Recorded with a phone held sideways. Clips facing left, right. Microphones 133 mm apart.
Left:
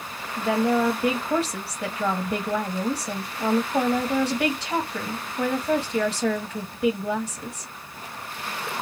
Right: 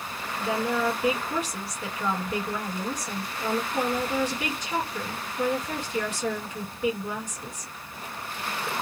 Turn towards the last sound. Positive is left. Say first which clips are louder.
# left 5 dB
turn(degrees=70)  # may be behind; listen again after turning